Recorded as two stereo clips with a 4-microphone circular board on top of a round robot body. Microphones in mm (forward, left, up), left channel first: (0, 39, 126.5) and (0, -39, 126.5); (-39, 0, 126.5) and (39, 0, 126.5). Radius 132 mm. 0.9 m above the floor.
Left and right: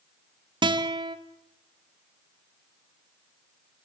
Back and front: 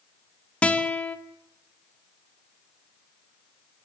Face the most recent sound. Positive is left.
turn(degrees=-105)